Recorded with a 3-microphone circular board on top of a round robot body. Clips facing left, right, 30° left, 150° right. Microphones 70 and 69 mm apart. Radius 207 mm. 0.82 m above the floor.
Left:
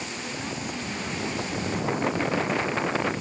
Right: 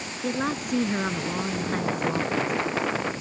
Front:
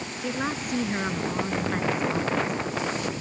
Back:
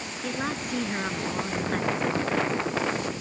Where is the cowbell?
I don't hear a cowbell.